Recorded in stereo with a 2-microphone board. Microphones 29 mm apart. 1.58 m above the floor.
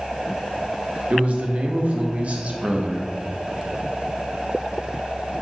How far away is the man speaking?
About 0.7 m.